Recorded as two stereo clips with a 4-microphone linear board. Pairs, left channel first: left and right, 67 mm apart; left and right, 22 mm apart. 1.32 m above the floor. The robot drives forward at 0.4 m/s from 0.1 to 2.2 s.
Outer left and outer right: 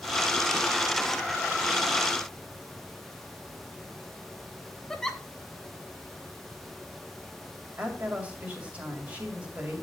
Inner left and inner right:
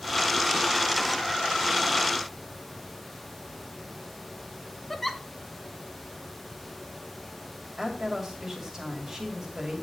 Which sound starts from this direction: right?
A woman speaking, at 7.8 s.